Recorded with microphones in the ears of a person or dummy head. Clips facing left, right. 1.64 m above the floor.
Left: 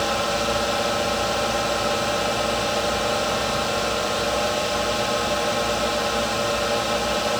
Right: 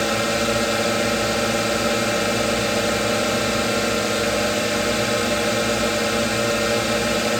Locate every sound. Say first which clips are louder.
0.0 s a drone: right 2 dB; 25° right (ahead or behind)